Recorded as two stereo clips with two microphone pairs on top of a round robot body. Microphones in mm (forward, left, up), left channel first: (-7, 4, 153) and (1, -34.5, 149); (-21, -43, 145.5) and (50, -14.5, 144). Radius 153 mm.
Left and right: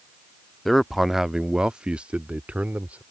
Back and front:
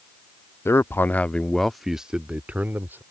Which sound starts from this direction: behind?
A man speaking, at 0.7 s.